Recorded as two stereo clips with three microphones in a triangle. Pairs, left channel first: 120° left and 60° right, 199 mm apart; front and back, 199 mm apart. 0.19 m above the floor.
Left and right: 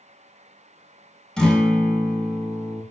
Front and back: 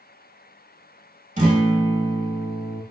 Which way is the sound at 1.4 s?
155° right.